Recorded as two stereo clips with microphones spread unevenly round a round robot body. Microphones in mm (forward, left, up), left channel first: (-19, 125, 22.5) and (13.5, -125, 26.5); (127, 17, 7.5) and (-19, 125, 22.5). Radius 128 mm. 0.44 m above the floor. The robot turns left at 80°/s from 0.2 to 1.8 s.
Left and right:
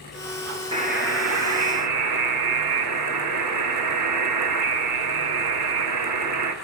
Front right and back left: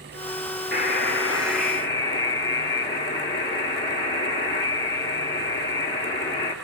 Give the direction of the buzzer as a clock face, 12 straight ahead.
12 o'clock.